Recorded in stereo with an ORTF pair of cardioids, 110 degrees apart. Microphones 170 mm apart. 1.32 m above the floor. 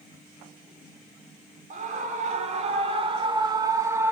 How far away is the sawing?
I don't hear sawing.